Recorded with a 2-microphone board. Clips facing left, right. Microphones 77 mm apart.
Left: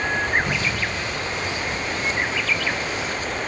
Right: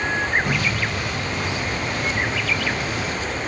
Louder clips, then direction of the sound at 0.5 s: Right 1 dB; 55° right (ahead or behind).